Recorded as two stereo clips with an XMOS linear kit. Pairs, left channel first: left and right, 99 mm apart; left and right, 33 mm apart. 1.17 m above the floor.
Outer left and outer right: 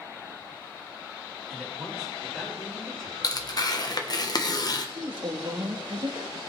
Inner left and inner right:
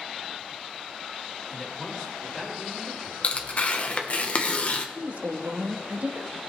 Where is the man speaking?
5° right (ahead or behind), 5 m; by 3.1 s 5° left (ahead or behind), 6 m.